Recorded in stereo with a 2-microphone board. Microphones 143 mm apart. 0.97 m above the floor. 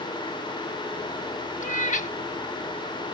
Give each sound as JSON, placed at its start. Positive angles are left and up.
{"t": 1.6, "sound": "a cat meowing", "side_deg": 65}